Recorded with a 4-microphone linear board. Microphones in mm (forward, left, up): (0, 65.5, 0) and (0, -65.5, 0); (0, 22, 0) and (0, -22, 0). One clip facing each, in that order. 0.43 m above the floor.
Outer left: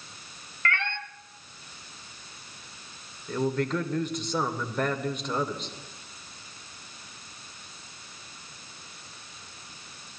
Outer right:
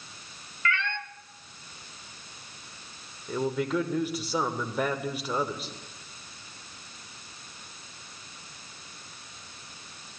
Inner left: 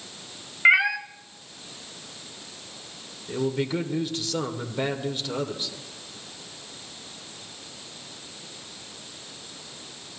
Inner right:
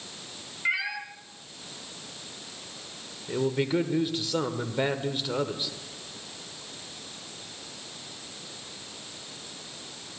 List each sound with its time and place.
0.7 s a cat meowing: 55° left (ahead or behind), 0.8 m
3.3 s a man speaking: 5° right (ahead or behind), 1.1 m